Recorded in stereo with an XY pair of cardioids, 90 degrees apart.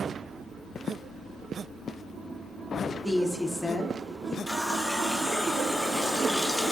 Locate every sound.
3.0 s a woman speaking: 15° left, 0.6 m
4.5 s a running tap: 5° left, 0.5 m